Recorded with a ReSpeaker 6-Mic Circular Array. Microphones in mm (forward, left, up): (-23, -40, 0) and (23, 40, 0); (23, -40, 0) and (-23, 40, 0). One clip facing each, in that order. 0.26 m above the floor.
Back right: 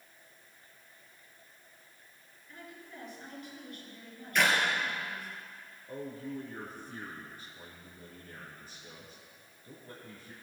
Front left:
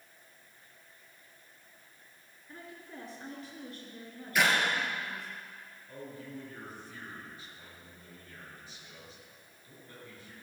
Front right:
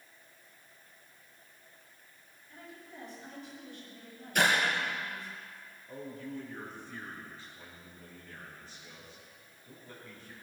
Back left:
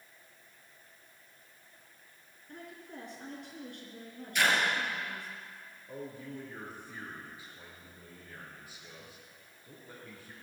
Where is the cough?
No cough in this recording.